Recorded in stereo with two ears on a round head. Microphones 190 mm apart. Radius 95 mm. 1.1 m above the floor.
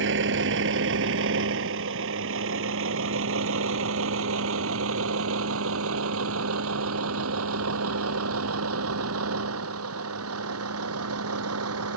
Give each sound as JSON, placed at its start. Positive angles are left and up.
{"t": 0.0, "sound": "a vehicle", "side_deg": -60}